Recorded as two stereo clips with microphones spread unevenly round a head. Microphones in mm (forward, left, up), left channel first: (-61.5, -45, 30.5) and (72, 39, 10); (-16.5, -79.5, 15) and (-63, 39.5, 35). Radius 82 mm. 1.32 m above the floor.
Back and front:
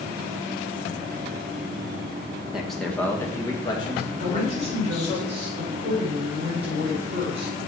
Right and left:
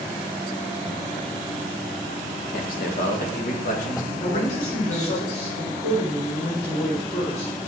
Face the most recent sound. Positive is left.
turn(degrees=-20)